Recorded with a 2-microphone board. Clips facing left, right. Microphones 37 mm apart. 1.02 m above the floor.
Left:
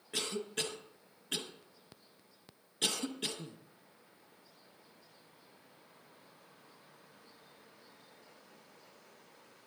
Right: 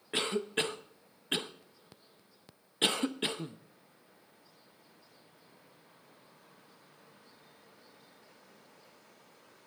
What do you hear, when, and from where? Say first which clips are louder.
0.1 s a cough: right 6 dB; 30° right (ahead or behind), 0.7 m